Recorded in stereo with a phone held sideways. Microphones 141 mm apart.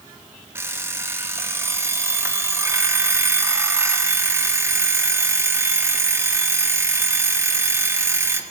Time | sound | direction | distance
0.6 | an alarm clock | 20° right (ahead or behind) | 1.2 m